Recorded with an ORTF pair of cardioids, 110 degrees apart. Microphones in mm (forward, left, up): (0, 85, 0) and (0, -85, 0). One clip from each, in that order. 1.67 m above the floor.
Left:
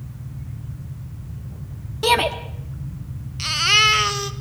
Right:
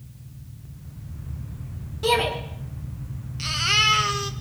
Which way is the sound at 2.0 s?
45° left.